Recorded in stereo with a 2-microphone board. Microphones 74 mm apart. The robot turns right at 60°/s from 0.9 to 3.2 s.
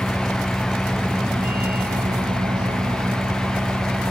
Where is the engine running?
175° right; by 4.1 s 35° right.